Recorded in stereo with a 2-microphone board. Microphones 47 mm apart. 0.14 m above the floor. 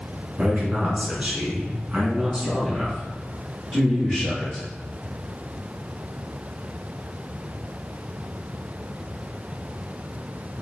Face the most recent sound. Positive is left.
turn(degrees=5)  # may be behind; listen again after turning